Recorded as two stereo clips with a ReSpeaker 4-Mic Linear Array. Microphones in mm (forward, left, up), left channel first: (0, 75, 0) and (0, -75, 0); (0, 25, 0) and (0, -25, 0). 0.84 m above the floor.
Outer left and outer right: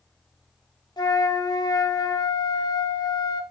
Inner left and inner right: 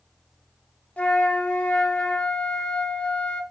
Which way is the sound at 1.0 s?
25° left (ahead or behind).